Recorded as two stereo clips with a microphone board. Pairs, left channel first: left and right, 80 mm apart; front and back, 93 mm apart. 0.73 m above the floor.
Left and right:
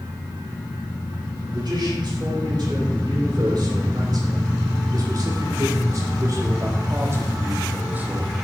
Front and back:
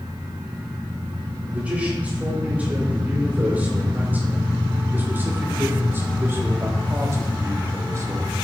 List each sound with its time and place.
1.5 s a man speaking: 105° right, 4 m; by 8.3 s 155° right, 1.3 m